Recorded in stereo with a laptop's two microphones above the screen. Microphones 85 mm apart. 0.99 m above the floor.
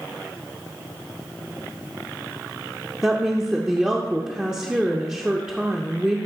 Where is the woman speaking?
10° right (ahead or behind), 0.6 m.